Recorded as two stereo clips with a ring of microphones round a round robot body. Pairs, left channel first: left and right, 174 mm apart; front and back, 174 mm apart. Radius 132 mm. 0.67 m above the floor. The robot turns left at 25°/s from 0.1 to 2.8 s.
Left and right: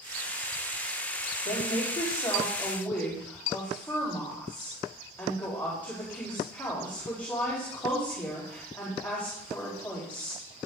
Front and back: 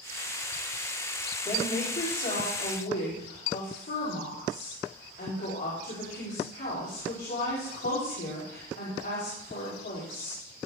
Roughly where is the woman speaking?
Ahead left.